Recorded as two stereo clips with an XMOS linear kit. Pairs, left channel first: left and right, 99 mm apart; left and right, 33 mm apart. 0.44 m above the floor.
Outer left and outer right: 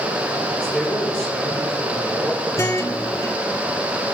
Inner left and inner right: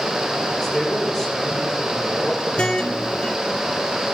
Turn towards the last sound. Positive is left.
turn(degrees=30)  # may be behind; listen again after turning